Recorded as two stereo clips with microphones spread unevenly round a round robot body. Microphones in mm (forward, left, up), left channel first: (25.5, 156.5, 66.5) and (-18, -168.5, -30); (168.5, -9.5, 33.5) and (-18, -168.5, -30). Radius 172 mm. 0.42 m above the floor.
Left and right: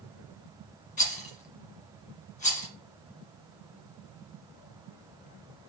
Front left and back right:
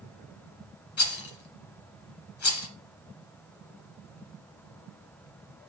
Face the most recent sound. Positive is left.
turn(degrees=10)